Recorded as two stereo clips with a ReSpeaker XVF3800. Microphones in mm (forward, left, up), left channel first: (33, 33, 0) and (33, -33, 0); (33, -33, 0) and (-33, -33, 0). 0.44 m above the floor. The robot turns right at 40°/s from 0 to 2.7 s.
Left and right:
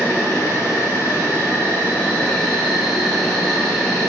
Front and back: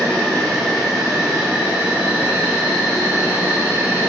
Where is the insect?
60° left, 0.8 m; by 4.1 s 165° left, 0.8 m.